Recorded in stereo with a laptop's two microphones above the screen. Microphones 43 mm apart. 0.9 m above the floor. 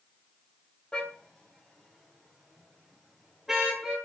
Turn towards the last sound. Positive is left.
turn(degrees=-10)  # may be behind; listen again after turning